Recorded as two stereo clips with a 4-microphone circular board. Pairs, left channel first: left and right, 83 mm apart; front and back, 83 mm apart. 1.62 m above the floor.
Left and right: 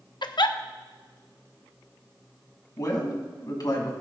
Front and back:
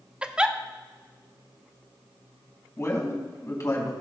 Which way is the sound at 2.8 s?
50° left.